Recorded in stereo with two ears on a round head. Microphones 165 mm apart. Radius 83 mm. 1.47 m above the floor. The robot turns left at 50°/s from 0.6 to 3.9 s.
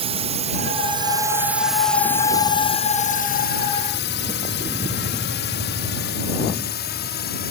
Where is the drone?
35° right (ahead or behind); by 7.5 s 60° left (ahead or behind).